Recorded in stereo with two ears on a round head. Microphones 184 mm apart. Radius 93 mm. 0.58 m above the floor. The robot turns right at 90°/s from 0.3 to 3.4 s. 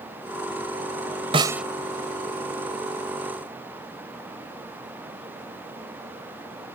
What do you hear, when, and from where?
1.3 s a snare drum: 25° right (ahead or behind); by 1.6 s centre (ahead or behind)